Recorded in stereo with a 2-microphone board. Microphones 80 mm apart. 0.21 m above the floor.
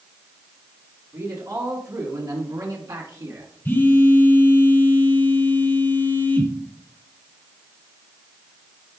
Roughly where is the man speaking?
Right.